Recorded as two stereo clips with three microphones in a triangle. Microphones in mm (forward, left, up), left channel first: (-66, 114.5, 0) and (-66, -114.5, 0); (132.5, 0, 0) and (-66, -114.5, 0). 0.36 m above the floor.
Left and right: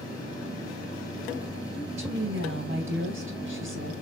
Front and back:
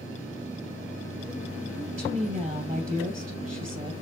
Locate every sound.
1.8 s a woman speaking: 100° right, 2.5 m